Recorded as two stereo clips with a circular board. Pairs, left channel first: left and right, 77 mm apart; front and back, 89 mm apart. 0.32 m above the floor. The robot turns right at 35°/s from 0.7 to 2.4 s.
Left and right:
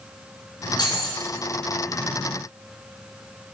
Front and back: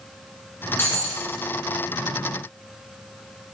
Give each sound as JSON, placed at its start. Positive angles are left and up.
{"t": 0.8, "sound": "breaking glass", "azimuth_deg": 65, "distance_m": 1.8}